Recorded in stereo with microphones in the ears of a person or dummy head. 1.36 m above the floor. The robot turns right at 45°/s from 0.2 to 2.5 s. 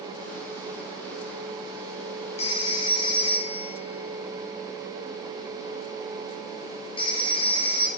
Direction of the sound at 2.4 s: 40° left (ahead or behind).